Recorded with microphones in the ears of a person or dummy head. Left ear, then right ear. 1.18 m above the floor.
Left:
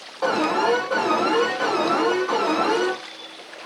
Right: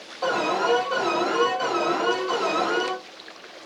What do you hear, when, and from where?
0.2 s an alarm: 25° left (ahead or behind), 1.8 m